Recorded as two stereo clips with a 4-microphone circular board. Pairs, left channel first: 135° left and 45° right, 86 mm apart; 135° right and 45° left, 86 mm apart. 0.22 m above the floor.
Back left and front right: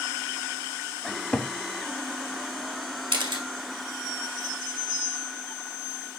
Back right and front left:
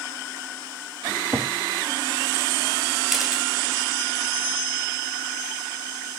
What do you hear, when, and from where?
1.1 s a cupboard door: 75° left, 0.6 m
3.1 s a camera shutter: 45° right, 1.7 m